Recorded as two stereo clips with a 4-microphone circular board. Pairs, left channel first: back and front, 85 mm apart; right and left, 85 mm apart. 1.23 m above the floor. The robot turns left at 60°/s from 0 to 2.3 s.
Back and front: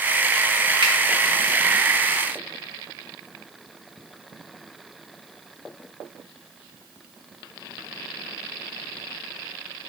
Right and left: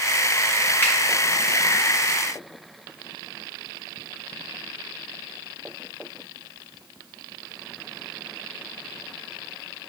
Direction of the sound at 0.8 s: 25° right.